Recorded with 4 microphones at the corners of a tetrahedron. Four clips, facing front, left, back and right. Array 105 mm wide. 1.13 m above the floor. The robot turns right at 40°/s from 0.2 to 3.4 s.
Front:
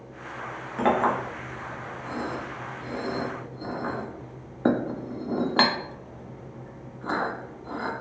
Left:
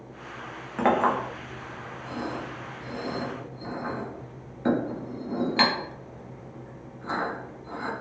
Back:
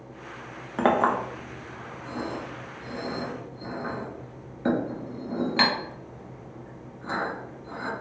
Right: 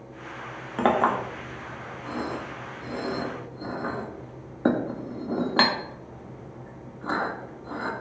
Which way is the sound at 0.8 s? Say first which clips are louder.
Right 1 dB, back 1 dB; 150° right.